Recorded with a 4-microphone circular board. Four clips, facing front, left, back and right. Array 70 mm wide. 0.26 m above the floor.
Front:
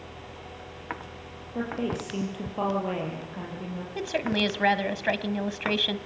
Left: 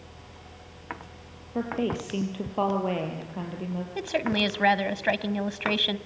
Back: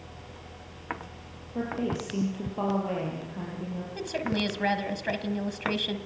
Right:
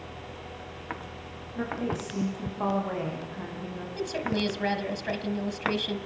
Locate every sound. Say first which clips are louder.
1.6 s a woman speaking: left 3 dB, even; 85° left, 7.5 m
4.0 s a woman speaking: left 2 dB, front 3 dB; 60° left, 1.8 m